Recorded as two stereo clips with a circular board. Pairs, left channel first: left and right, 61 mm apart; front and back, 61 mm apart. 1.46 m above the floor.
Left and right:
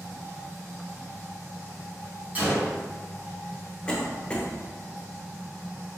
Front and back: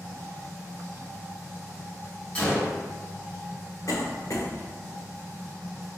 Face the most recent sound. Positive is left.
turn(degrees=20)